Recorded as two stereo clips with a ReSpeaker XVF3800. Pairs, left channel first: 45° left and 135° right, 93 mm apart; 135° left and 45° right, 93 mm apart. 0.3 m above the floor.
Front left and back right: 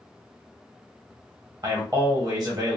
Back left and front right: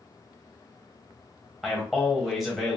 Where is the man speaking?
130° right, 1.1 m.